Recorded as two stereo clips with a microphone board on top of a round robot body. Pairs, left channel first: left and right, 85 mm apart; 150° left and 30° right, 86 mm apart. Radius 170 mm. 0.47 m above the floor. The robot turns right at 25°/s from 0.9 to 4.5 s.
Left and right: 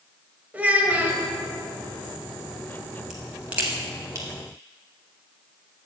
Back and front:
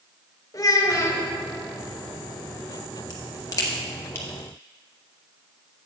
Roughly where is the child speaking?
Behind.